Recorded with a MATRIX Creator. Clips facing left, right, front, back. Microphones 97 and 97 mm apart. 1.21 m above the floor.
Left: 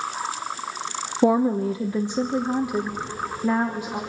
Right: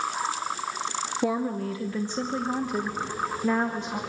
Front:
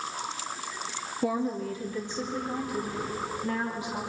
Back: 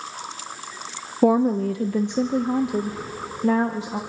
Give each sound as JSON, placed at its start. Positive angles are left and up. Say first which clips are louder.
{"t": 1.2, "sound": "a woman speaking", "louder": "left 9 dB, back 11 dB", "azimuth_deg": 145, "distance_m": 0.6}